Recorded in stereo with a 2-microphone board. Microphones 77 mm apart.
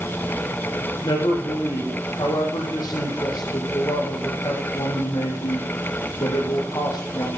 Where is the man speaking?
65° left (ahead or behind), 5.5 m.